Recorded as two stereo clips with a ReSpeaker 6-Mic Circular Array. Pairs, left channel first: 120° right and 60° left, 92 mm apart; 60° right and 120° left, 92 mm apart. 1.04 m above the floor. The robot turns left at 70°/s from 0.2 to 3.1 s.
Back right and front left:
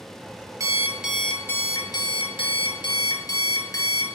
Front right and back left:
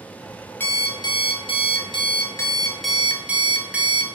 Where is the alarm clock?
10° left, 0.6 m; by 4.0 s 165° right, 0.6 m.